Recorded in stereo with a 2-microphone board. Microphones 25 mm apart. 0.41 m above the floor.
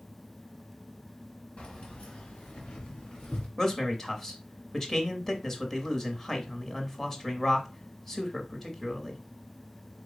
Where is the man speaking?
15° left (ahead or behind), 1.3 m.